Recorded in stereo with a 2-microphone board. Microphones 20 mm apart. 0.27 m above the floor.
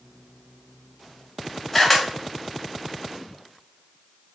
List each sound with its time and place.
1.7 s a camera shutter: 10° left (ahead or behind), 1.3 m